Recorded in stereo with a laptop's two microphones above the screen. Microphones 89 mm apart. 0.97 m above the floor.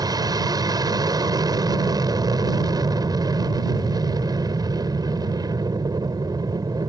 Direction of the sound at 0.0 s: 45° right (ahead or behind).